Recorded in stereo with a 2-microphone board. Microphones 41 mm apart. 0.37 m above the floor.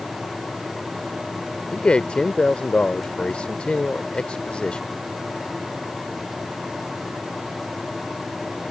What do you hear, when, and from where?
1.7 s a man speaking: 25° left (ahead or behind)